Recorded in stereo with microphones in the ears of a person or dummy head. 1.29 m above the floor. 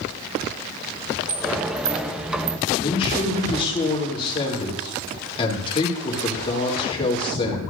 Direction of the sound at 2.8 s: 25° left (ahead or behind).